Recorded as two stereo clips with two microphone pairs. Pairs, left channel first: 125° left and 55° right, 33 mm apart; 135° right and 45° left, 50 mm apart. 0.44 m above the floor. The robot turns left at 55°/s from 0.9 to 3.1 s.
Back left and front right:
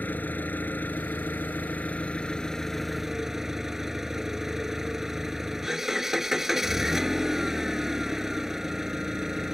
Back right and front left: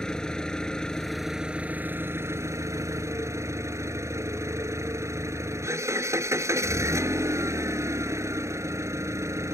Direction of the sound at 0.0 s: 145° left.